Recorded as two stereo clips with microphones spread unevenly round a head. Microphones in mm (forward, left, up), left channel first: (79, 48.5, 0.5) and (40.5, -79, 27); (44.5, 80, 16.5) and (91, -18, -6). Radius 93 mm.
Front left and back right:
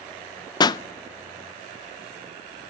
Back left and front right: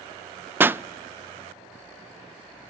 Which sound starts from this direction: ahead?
A pop, at 0.6 s.